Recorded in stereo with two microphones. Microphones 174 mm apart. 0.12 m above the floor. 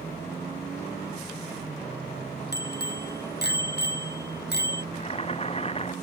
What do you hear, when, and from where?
2.5 s a bicycle bell: 70° left (ahead or behind)
4.9 s boiling: 35° left (ahead or behind)